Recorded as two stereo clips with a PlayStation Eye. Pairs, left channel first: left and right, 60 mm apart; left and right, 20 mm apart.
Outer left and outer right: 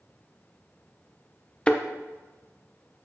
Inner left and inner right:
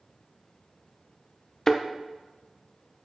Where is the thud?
15° left (ahead or behind), 1.1 m.